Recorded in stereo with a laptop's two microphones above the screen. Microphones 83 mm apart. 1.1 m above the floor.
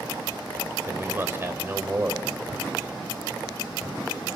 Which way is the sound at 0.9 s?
30° right (ahead or behind).